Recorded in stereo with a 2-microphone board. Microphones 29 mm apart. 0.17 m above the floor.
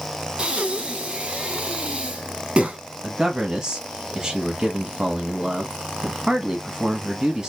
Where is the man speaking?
20° right (ahead or behind), 1.0 m.